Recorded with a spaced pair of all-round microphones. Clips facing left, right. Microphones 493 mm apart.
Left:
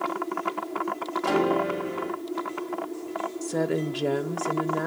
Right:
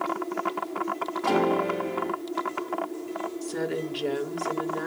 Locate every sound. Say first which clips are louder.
1.2 s a piano: even; 30° left (ahead or behind), 6.5 m
3.4 s a woman speaking: left 5 dB; 65° left (ahead or behind), 0.8 m